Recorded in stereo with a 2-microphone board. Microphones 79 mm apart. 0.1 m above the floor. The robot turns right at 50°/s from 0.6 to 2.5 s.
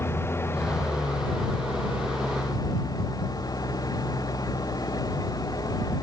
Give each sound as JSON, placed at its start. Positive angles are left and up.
{"t": 0.0, "sound": "an engine running", "azimuth_deg": 35}